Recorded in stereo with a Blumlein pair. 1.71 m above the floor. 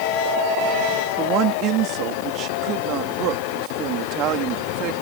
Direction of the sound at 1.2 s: 35° right.